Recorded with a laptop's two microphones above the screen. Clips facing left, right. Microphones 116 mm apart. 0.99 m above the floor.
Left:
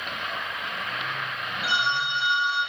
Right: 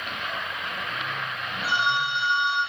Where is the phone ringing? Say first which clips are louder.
Right 2 dB; 75° left (ahead or behind), 0.9 m.